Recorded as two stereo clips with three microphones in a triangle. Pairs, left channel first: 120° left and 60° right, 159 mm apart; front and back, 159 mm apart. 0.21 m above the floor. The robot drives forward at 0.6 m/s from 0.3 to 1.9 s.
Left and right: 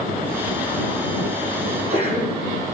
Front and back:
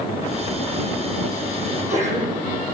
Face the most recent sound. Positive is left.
turn(degrees=-135)